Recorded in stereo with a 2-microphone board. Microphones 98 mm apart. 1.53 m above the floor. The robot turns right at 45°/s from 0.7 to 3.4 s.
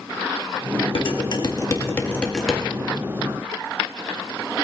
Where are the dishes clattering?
65° left (ahead or behind), 1.9 m; by 2.6 s 5° right (ahead or behind), 1.9 m.